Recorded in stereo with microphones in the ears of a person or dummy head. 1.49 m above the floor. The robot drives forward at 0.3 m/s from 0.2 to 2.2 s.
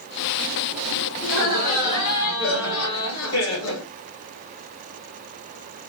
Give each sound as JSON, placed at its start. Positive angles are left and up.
{"t": 1.2, "sound": "laughter", "side_deg": 70, "distance_m": 2.0}